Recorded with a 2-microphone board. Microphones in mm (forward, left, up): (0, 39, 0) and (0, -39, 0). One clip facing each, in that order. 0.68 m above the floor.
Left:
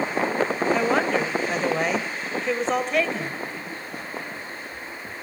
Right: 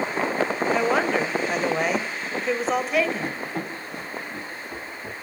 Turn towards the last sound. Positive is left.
turn(degrees=-65)  # may be behind; listen again after turning